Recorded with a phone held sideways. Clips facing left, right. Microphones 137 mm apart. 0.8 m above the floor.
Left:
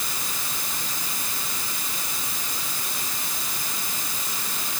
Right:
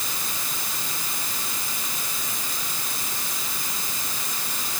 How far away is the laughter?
I don't hear laughter.